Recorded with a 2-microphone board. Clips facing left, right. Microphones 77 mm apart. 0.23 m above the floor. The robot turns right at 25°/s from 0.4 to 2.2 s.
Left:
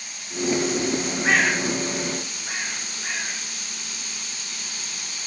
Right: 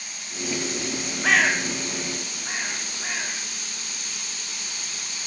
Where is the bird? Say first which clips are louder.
Right 1 dB; 85° right, 1.9 m; by 3.4 s 70° right (ahead or behind), 1.9 m.